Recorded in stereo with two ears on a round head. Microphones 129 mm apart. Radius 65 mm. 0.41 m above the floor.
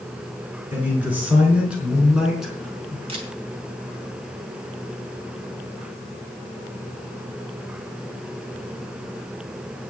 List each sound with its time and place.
0.7 s a man speaking: 15° right (ahead or behind), 4 m; by 3.0 s centre (ahead or behind), 3.5 m
3.1 s a camera shutter: 45° right (ahead or behind), 3 m